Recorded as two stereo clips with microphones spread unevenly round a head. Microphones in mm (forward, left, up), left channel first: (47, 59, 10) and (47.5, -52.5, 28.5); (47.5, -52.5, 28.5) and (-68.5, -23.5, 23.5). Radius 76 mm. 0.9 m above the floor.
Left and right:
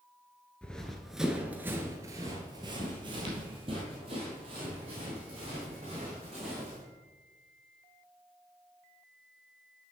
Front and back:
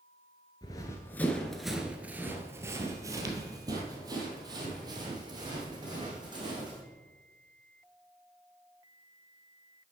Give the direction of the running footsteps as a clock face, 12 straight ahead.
12 o'clock.